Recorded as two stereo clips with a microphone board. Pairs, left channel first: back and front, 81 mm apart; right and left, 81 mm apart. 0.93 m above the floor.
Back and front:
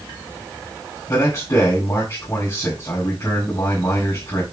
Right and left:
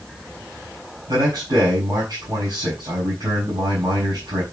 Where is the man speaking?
130° left, 5 m.